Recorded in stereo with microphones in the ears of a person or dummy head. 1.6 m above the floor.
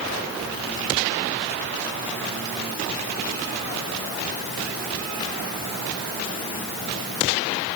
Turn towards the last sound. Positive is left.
No sound to turn to.